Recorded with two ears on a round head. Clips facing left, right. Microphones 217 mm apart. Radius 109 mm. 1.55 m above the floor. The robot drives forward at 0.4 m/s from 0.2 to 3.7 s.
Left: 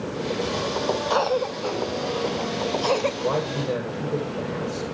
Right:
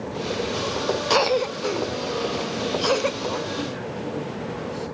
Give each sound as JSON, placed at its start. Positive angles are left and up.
{"t": 1.1, "sound": "a cough", "side_deg": -35, "distance_m": 0.6}
{"t": 3.2, "sound": "a man speaking", "side_deg": 75, "distance_m": 7.5}